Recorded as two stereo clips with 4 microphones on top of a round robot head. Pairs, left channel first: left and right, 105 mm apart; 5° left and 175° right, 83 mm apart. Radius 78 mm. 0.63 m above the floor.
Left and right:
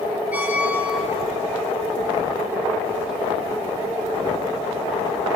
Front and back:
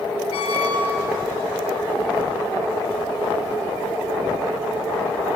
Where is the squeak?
10° right, 8 m.